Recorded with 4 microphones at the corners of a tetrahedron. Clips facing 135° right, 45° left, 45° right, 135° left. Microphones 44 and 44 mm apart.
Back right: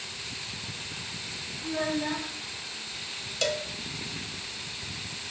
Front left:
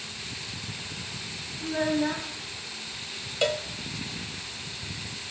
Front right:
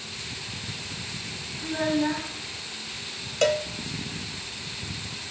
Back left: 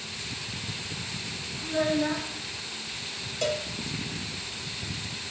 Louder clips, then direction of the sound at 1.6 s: Front left 4 dB, front right 1 dB; 25° left.